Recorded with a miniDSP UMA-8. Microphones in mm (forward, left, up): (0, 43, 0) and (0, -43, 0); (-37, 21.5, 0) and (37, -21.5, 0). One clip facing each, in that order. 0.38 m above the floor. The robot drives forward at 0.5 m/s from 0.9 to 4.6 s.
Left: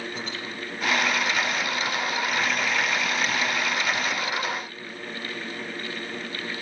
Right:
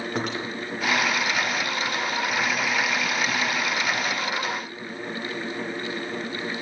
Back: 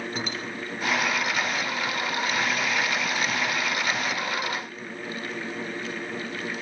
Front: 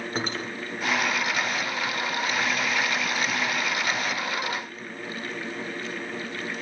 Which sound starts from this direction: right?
Cutlery clinking, at 0.1 s.